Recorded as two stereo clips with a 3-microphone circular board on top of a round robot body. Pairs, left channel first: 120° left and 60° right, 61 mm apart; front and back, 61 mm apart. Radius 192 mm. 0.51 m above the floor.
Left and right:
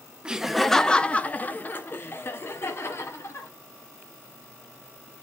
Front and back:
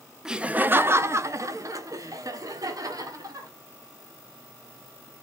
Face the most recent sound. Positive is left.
turn(degrees=165)